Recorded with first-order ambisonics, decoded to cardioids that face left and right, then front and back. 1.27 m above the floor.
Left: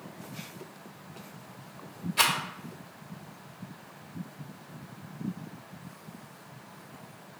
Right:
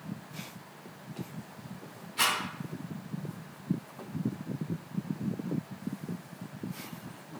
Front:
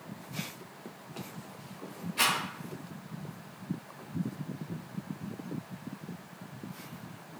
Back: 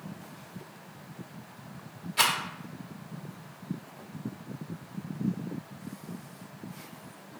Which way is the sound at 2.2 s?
130° left.